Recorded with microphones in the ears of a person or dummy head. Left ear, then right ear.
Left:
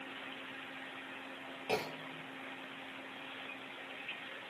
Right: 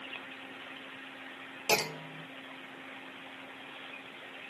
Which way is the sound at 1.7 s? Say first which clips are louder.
Right 7 dB; 65° right (ahead or behind).